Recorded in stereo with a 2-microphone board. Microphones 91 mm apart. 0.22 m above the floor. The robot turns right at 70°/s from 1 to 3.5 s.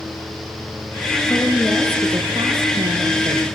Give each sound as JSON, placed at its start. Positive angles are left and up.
{"t": 1.3, "sound": "a woman speaking", "azimuth_deg": 155, "distance_m": 3.0}